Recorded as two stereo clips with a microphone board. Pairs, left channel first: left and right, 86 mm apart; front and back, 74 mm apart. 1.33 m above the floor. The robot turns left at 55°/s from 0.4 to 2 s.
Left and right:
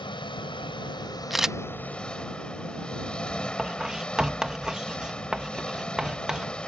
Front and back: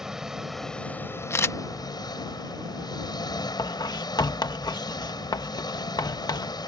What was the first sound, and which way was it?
An engine running, 100° left.